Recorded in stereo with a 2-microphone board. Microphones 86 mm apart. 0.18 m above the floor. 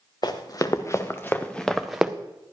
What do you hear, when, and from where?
0.2 s running footsteps: 50° left (ahead or behind), 1.4 m; by 2.1 s 10° right (ahead or behind), 0.9 m